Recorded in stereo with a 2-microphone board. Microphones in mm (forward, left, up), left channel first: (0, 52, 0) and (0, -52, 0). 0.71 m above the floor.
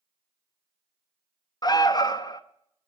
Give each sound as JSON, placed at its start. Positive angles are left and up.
{"t": 1.6, "sound": "an alarm", "side_deg": 35, "distance_m": 0.9}